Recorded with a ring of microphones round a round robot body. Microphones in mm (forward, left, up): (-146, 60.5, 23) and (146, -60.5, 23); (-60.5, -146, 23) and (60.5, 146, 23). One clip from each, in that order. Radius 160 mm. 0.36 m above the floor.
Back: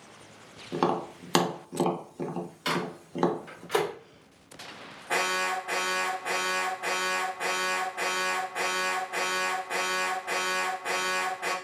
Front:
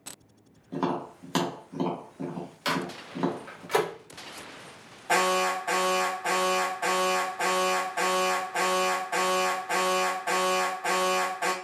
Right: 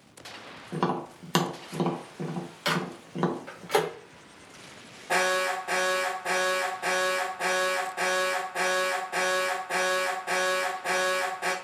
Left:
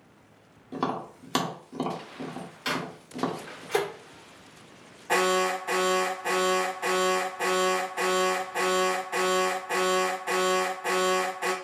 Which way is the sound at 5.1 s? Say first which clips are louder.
Front 3 dB, left 1 dB; 10° right.